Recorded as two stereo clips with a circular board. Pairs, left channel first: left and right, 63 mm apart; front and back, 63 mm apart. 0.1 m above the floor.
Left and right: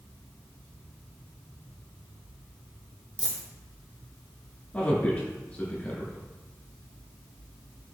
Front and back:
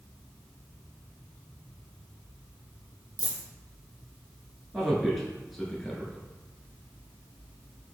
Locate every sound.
3.2 s a dropped coin: 50° right, 0.9 m
4.7 s a man speaking: 85° left, 1.1 m